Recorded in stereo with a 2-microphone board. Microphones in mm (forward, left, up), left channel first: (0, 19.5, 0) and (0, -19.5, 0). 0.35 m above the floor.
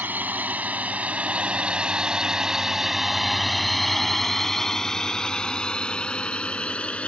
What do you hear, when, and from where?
0.0 s a drone: 50° right (ahead or behind); by 7.1 s 30° left (ahead or behind)